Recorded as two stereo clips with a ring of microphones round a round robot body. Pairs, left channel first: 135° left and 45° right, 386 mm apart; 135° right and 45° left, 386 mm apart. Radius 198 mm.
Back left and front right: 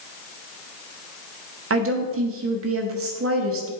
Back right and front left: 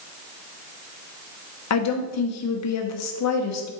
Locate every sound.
1.7 s a woman speaking: 95° right, 1.0 m